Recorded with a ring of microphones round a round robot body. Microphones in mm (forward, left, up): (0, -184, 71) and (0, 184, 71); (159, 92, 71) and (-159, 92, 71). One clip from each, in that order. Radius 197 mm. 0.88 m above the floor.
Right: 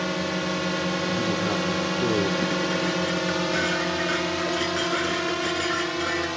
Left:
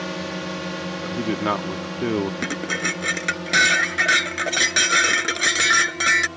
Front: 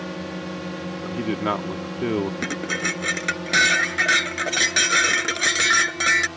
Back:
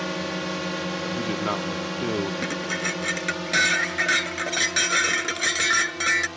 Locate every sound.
0.0 s a drone: 175° right; by 6.4 s 105° right
1.0 s a man speaking: 80° left
2.4 s dishes clattering: 85° left